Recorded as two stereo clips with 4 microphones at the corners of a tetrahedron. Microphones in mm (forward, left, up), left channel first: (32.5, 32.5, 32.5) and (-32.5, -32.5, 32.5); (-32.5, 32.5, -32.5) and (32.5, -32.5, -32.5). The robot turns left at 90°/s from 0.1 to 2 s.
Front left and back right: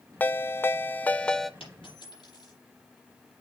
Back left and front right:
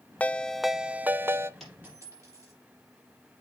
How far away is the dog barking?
No dog barking in this recording.